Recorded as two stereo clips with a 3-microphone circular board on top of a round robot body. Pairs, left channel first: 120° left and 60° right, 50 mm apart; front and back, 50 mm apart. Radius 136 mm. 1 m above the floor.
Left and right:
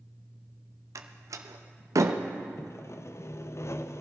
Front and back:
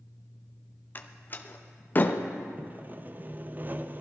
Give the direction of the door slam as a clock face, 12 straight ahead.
2 o'clock.